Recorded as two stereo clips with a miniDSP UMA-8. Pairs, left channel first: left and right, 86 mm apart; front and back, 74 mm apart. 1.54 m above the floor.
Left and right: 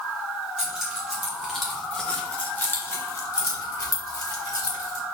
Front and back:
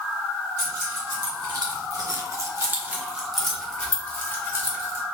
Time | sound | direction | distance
0.6 | keys jangling | 170° right | 1.9 m